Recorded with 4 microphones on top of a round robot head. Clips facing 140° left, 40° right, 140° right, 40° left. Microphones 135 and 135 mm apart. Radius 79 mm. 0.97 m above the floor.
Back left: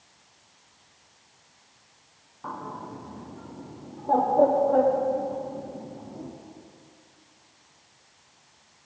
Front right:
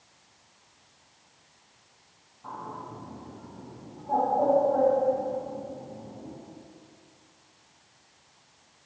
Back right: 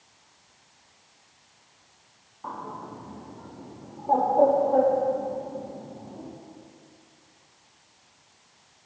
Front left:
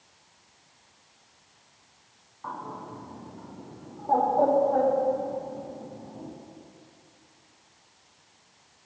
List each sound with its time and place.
2.4 s a bird: 150° left, 0.9 m